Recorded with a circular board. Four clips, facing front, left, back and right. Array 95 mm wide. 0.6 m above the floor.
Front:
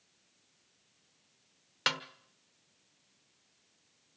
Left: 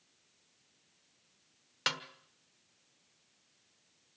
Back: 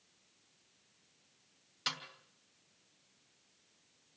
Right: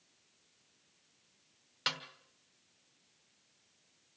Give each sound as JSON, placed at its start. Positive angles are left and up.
{"t": 1.9, "sound": "a snare drum", "azimuth_deg": 20, "distance_m": 1.1}